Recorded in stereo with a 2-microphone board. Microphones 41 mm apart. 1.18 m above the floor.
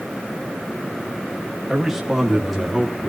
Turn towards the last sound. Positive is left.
turn(degrees=0)  # may be behind; listen again after turning